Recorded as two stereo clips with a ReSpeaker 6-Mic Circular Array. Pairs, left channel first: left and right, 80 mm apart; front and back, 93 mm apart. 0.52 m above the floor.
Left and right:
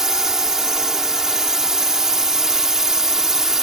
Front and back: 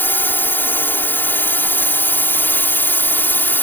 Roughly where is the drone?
Ahead.